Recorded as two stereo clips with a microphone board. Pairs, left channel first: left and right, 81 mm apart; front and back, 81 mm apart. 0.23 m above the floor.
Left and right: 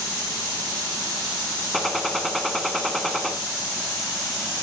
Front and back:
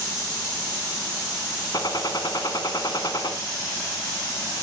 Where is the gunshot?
Straight ahead, 1.3 m.